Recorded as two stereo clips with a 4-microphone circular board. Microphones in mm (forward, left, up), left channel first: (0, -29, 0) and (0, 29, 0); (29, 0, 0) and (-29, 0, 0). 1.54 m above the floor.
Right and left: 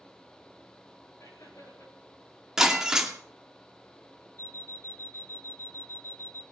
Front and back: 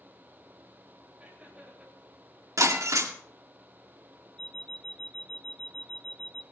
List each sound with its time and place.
1.2 s laughter: 105° right, 9.5 m
2.6 s breaking glass: 175° left, 2 m
4.4 s an alarm clock: 75° right, 1.0 m